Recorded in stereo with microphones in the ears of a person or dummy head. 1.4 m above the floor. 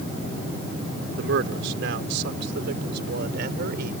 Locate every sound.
1.2 s a man speaking: 80° right; by 3.9 s 65° right (ahead or behind)